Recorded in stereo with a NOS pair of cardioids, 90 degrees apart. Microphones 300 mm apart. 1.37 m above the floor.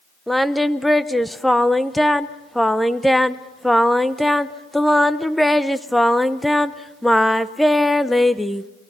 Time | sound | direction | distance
0.3 | singing | straight ahead | 0.7 m